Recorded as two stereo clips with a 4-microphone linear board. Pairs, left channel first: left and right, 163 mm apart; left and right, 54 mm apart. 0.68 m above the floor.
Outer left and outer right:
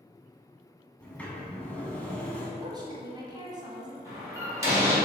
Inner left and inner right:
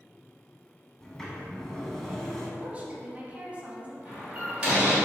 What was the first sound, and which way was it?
A sliding door, 10° left (ahead or behind).